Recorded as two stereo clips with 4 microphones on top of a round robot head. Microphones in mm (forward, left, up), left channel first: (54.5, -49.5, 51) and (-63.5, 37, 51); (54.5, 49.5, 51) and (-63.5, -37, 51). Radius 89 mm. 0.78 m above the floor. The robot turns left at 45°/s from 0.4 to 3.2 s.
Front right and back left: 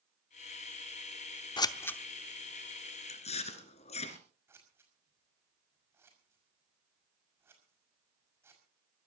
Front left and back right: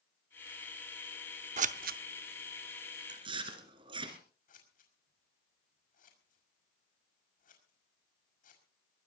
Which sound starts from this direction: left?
Scissors, at 4.5 s.